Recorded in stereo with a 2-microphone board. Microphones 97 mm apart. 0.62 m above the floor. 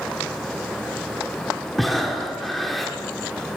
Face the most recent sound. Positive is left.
turn(degrees=0)  # may be behind; listen again after turning